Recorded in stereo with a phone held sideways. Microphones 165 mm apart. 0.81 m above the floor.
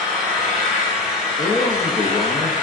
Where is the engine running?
5° right (ahead or behind), 3.5 m.